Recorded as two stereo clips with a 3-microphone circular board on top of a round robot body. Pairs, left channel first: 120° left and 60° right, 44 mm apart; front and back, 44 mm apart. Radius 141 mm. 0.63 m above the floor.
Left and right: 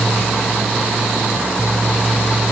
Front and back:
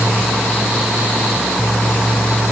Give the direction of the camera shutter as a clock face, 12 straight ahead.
I don't hear a camera shutter.